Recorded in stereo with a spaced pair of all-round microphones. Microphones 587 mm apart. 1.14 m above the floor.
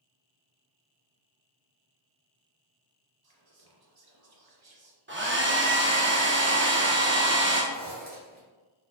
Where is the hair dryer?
20° right (ahead or behind), 0.6 m.